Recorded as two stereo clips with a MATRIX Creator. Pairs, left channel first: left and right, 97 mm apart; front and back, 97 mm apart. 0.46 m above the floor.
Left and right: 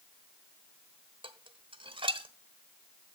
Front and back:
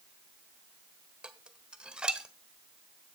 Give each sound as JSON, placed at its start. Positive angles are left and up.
{"t": 1.2, "sound": "dishes clattering", "azimuth_deg": -100, "distance_m": 1.1}